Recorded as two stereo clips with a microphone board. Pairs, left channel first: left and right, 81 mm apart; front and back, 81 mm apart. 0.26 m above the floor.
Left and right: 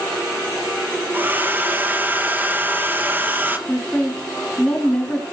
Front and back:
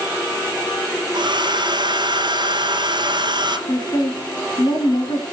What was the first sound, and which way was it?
A hair dryer, 155° right.